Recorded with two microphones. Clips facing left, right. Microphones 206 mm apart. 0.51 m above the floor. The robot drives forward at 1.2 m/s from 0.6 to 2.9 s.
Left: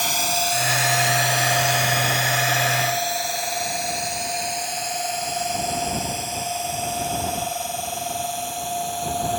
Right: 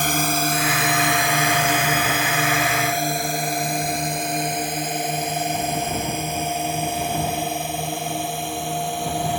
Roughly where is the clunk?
I don't hear a clunk.